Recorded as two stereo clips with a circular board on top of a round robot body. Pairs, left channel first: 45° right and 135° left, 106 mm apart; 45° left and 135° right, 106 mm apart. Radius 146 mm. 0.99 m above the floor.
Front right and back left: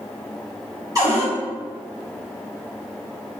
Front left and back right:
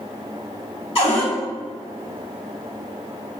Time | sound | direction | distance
0.9 | a cupboard door | 75° left | 1.8 m